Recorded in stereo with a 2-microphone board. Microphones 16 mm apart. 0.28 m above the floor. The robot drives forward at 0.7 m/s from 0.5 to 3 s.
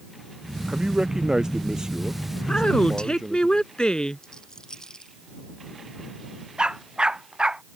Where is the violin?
No violin in this recording.